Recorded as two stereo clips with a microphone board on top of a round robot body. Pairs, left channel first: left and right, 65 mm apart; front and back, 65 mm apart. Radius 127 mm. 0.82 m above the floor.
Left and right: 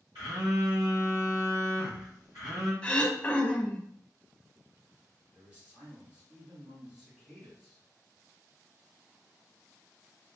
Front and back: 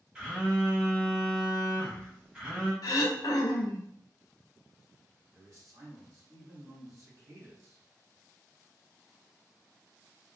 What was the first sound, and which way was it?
A phone buzzing, 105° right.